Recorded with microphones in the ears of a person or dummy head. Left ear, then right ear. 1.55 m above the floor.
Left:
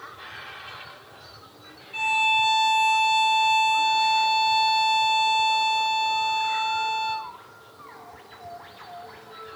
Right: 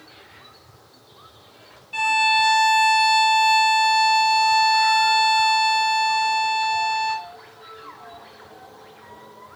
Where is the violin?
40° right (ahead or behind), 1.3 m.